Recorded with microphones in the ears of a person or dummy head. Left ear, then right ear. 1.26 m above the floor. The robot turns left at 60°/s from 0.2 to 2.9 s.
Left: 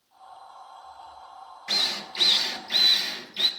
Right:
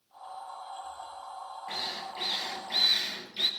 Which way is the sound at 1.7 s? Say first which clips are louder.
Left 10 dB; 80° left.